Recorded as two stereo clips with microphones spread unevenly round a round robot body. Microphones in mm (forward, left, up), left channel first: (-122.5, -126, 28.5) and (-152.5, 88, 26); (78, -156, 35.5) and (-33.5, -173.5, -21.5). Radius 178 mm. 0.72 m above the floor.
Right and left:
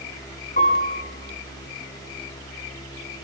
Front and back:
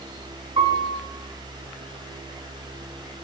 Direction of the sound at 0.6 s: 130° right.